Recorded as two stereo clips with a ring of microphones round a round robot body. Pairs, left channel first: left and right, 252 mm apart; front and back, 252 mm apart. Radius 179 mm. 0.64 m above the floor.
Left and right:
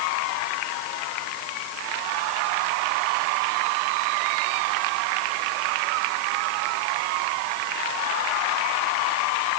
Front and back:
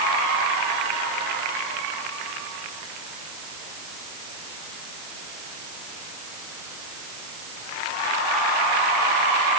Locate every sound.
Only background noise.